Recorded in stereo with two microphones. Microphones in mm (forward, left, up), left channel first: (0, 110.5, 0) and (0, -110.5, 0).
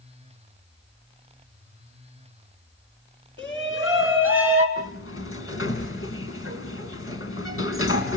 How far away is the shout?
About 3.5 m.